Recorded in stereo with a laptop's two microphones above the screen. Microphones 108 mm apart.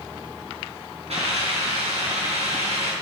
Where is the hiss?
80° right, 4.5 m.